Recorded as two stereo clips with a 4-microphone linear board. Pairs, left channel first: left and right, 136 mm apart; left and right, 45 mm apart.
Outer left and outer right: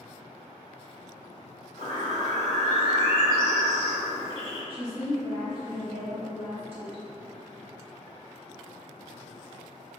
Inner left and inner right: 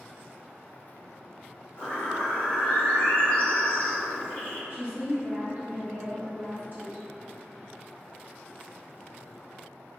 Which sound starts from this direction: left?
A bird, at 1.8 s.